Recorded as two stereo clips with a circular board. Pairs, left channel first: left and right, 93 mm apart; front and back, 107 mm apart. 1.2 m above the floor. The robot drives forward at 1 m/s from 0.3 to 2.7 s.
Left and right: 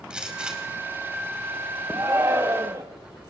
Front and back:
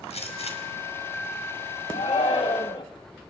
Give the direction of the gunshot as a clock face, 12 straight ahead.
12 o'clock.